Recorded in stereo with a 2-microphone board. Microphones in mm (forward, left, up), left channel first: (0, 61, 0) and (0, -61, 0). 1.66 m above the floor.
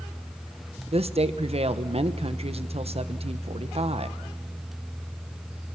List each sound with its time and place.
0.9 s a woman speaking: 55° right (ahead or behind), 1.2 m